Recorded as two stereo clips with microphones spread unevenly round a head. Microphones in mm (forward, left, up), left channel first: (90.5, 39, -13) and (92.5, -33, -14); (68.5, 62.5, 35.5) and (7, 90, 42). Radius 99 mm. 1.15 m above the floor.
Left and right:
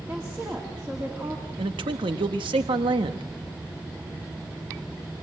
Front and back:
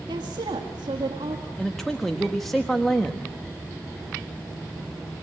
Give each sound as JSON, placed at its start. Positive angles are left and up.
{"t": 0.1, "sound": "a woman speaking", "azimuth_deg": -165, "distance_m": 1.9}
{"t": 1.6, "sound": "a man speaking", "azimuth_deg": -110, "distance_m": 1.2}